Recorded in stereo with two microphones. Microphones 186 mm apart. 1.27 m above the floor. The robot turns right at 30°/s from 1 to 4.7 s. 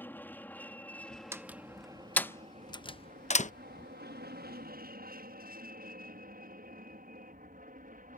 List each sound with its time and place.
0.0 s an aircraft: 10° left (ahead or behind); by 8.2 s 45° right (ahead or behind)
1.3 s a door slam: 15° right (ahead or behind); by 3.5 s 45° left (ahead or behind)